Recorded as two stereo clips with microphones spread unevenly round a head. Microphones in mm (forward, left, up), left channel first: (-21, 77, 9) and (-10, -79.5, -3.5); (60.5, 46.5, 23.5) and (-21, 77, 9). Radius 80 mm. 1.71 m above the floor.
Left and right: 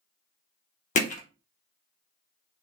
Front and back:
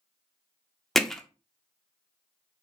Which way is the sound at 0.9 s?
60° left.